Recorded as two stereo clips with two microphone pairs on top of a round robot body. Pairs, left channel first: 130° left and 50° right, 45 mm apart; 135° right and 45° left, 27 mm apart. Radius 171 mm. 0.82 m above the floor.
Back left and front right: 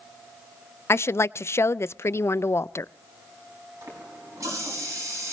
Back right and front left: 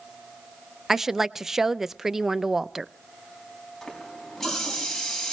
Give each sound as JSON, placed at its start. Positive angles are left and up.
{"t": 0.9, "sound": "a woman speaking", "azimuth_deg": 125, "distance_m": 0.5}
{"t": 3.8, "sound": "a running tap", "azimuth_deg": -55, "distance_m": 5.5}